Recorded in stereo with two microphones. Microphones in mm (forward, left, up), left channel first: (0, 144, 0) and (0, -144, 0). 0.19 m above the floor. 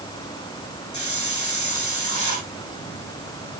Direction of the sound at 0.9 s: 75° left (ahead or behind).